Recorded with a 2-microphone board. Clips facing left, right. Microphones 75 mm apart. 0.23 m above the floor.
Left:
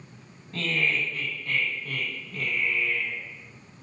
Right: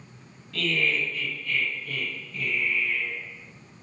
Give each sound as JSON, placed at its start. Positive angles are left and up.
{"t": 0.5, "sound": "laughter", "side_deg": 30, "distance_m": 1.7}